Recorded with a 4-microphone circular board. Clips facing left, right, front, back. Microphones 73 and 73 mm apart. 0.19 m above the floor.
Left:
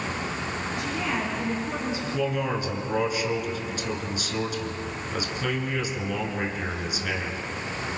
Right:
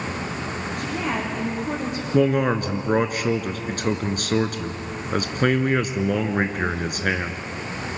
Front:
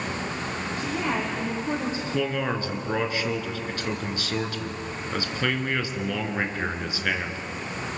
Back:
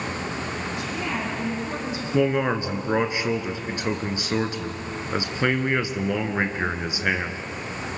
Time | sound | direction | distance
0.8 | a woman speaking | 50° right | 9 m
2.1 | a man speaking | 115° right | 2 m